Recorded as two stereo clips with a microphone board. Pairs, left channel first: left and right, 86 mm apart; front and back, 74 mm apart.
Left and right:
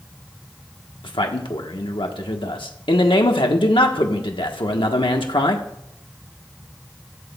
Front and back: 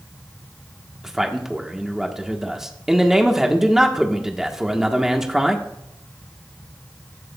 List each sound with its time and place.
1.0 s a man speaking: 95° left, 1.2 m